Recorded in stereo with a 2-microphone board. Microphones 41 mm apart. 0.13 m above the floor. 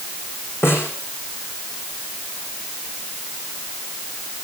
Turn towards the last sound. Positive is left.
turn(degrees=75)  # may be behind; listen again after turning